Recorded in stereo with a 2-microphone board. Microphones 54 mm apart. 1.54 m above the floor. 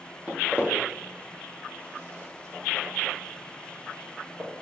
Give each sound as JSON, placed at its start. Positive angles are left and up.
{"t": 0.3, "sound": "footsteps", "side_deg": -30, "distance_m": 1.8}